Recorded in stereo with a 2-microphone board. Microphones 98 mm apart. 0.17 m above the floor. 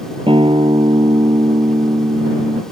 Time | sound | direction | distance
0.3 | a guitar | 65° right (ahead or behind) | ?